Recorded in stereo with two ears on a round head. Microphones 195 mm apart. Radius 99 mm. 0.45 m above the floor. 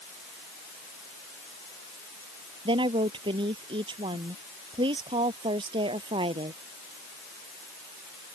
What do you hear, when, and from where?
2.6 s a woman speaking: 25° right (ahead or behind)